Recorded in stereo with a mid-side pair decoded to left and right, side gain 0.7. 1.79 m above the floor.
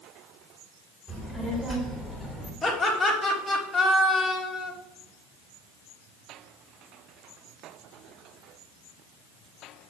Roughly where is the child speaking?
Ahead.